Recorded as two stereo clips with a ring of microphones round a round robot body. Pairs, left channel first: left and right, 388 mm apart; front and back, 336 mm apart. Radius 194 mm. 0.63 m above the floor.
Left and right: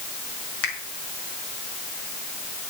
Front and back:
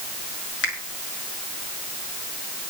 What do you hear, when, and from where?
0.6 s a finger snap: 55° left, 5.5 m